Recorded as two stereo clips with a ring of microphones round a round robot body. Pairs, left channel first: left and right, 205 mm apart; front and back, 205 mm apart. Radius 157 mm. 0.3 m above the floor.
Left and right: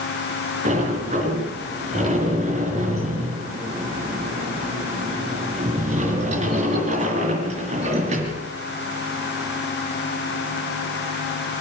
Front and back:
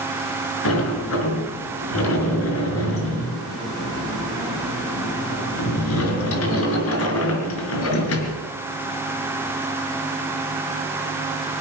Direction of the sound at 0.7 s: 25° right.